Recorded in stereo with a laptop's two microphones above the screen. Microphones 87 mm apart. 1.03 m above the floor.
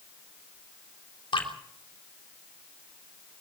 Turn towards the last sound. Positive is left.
turn(degrees=80)